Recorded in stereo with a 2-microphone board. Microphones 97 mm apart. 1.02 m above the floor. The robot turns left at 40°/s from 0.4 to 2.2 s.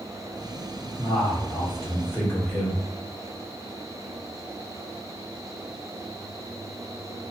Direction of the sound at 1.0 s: 70° left.